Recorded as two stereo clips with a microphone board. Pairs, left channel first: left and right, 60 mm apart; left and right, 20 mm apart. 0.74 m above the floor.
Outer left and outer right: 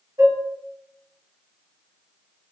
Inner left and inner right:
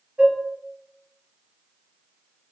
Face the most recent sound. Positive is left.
turn(degrees=-75)  # may be behind; listen again after turning